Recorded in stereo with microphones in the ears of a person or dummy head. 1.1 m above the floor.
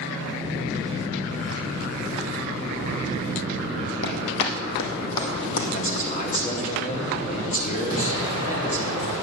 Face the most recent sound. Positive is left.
turn(degrees=85)